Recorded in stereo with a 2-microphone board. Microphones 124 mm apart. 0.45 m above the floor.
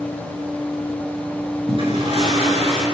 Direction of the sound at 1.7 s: 45° right (ahead or behind).